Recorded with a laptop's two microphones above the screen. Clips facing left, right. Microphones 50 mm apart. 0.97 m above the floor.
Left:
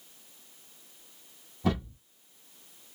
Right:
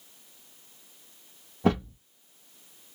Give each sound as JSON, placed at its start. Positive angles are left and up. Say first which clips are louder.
{"t": 1.6, "sound": "a thud", "louder": "right 5 dB", "side_deg": -40, "distance_m": 1.6}